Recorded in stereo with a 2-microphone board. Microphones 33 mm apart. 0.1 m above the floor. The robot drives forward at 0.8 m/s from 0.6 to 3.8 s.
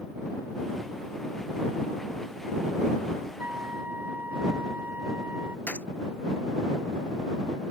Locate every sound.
3.4 s a flute: 80° right
5.7 s a gunshot: 65° left (ahead or behind)